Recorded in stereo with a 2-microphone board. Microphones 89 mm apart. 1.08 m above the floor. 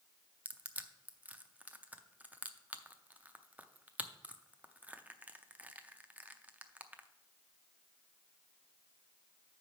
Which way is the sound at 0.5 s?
15° right (ahead or behind).